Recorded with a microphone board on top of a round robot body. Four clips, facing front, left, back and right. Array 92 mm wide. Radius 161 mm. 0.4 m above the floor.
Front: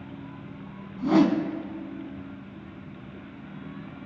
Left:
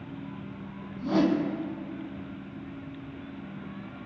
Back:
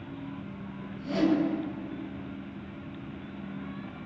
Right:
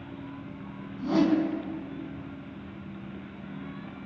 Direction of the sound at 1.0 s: Straight ahead.